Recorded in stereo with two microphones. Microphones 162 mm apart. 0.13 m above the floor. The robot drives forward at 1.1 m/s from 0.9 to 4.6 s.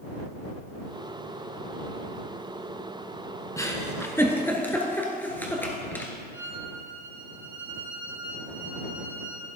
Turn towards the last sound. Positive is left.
turn(degrees=-15)  # may be behind; listen again after turning